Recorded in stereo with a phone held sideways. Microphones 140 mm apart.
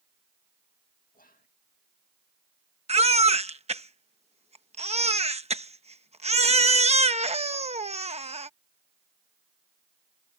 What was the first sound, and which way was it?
Whispering, 85° left.